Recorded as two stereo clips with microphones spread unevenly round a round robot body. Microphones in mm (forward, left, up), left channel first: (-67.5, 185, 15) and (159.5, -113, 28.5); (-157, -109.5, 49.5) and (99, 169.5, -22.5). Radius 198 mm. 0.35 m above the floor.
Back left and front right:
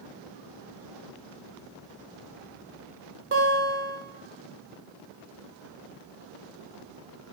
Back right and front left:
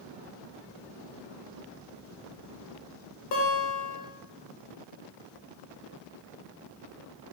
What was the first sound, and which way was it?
A guitar, 90° right.